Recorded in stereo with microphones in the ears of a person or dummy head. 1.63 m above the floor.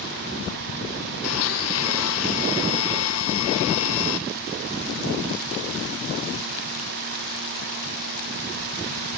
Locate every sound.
1.2 s a blender: 75° left (ahead or behind), 1.3 m